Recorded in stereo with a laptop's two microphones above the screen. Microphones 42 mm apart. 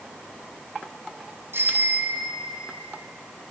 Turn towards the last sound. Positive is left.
turn(degrees=-75)  # may be behind; listen again after turning